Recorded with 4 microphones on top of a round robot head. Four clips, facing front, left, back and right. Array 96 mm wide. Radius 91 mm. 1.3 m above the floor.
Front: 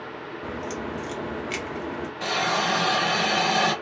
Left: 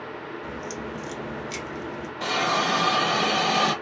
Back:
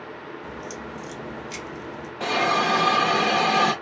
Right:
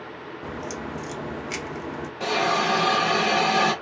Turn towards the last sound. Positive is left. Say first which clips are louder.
# right 1 dB, back 4 dB
turn(degrees=-155)